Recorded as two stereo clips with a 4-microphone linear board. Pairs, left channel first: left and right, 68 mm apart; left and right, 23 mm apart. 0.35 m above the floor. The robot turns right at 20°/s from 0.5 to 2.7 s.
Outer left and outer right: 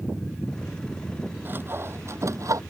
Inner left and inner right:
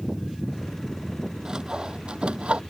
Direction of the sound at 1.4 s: 30° right (ahead or behind).